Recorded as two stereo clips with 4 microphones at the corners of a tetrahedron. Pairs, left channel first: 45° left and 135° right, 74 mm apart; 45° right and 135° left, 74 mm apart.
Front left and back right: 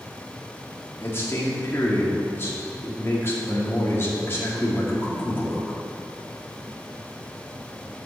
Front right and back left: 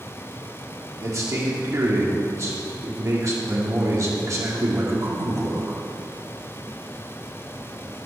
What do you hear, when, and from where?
1.0 s a man speaking: 100° left, 2 m